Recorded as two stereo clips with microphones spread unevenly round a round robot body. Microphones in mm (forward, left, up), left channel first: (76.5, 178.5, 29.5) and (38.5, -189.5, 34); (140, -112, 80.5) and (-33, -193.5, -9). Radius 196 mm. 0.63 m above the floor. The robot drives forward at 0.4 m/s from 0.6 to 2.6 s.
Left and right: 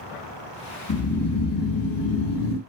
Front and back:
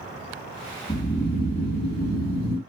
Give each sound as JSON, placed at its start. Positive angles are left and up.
{"t": 0.9, "sound": "snoring", "azimuth_deg": 70, "distance_m": 1.1}